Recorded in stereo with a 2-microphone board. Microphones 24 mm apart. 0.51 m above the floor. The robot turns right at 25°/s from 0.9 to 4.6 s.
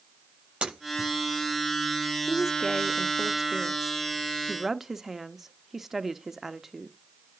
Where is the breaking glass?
55° right (ahead or behind), 7.5 m; by 1.1 s 50° right (ahead or behind), 7.5 m.